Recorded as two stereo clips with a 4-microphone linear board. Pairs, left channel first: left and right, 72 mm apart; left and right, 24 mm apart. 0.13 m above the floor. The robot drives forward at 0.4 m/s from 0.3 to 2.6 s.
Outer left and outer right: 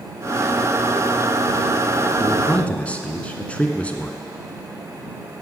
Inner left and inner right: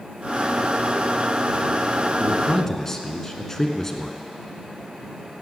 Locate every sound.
2.2 s a man speaking: 20° left (ahead or behind), 1.1 m